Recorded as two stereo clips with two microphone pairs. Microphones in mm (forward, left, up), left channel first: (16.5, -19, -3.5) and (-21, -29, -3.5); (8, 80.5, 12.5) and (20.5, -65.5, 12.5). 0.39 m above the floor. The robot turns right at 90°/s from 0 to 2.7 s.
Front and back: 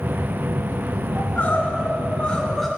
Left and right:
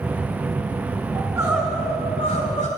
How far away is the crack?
I don't hear a crack.